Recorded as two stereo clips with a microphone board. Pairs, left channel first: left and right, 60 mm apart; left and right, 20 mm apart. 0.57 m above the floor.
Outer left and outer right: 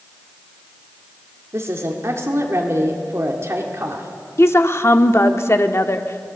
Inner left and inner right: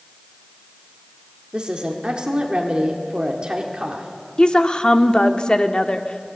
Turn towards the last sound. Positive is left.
turn(degrees=45)  # may be behind; listen again after turning